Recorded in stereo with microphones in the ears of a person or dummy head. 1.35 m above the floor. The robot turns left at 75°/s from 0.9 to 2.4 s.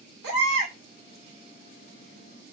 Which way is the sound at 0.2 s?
65° right (ahead or behind).